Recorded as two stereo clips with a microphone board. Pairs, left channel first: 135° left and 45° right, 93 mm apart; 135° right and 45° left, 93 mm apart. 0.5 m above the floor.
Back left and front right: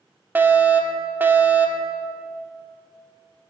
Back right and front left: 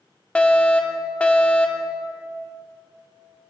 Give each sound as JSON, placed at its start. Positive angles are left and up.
{"t": 0.3, "sound": "a fire alarm", "azimuth_deg": -75, "distance_m": 2.0}